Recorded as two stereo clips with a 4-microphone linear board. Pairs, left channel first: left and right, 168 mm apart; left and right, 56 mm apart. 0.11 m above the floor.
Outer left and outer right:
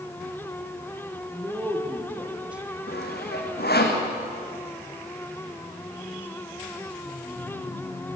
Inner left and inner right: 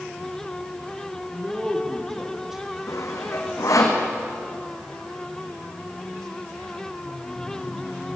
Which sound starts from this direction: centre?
A man speaking, at 1.3 s.